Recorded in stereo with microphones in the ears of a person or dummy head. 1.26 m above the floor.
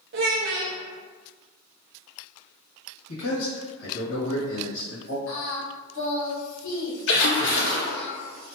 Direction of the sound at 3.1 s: 75° left (ahead or behind).